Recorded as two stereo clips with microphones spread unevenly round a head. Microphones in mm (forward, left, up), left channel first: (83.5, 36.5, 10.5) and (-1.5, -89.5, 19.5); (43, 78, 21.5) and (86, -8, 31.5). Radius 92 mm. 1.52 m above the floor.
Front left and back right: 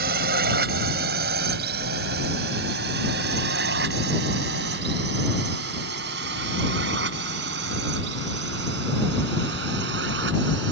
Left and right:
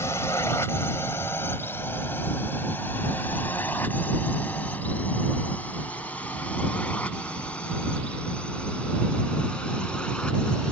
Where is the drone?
165° right; by 10.7 s 160° right.